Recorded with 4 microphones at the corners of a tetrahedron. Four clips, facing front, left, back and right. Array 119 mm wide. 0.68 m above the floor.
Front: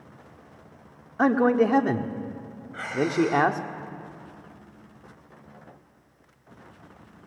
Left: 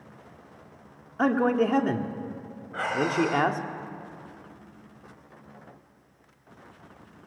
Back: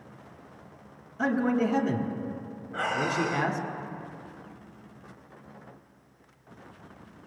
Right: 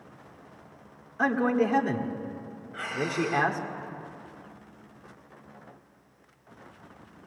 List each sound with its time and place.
1.2 s a man speaking: 15° left, 1.6 m
2.7 s breathing: 130° left, 1.1 m